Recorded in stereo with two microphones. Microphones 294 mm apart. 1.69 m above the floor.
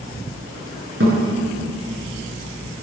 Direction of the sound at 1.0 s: 55° right (ahead or behind).